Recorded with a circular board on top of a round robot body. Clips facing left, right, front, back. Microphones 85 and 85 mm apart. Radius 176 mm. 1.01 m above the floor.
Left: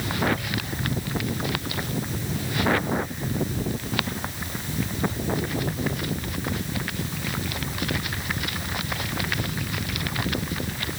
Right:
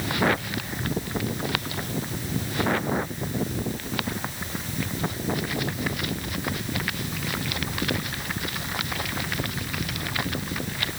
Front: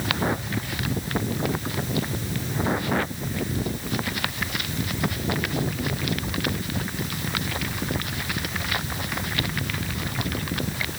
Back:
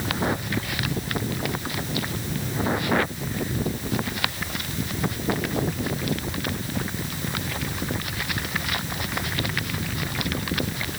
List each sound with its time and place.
Only background noise.